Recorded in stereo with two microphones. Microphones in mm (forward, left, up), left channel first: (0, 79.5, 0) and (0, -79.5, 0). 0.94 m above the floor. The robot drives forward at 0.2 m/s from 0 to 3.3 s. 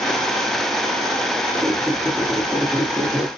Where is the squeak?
15° right (ahead or behind), 0.5 m; by 3.3 s 10° right (ahead or behind), 0.8 m.